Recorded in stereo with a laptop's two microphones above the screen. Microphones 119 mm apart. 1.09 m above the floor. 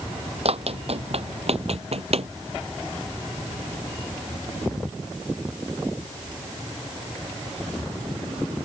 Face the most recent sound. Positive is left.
turn(degrees=-60)  # may be behind; listen again after turning